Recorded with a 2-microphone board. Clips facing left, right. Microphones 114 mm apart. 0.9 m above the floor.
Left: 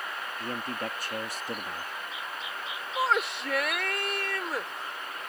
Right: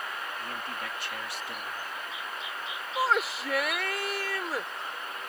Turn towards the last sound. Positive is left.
turn(degrees=0)  # may be behind; listen again after turning